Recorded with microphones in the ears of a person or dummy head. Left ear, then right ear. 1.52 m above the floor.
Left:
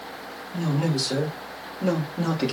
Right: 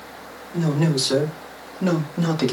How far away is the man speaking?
About 2 m.